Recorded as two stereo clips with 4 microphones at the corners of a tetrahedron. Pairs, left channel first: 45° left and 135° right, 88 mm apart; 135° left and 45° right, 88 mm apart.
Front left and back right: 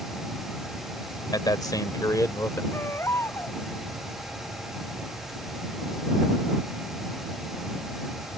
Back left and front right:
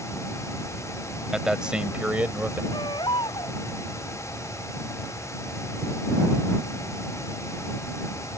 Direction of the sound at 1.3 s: 35° left.